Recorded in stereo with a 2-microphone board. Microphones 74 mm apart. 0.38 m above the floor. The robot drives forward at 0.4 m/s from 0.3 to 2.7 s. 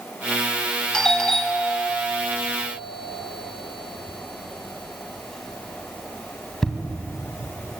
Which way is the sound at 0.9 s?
10° left (ahead or behind).